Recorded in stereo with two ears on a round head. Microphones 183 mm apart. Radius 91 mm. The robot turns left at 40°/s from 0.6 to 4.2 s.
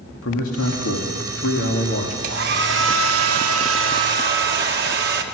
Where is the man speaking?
100° left, 2.5 m; by 2.1 s 35° left, 2.5 m.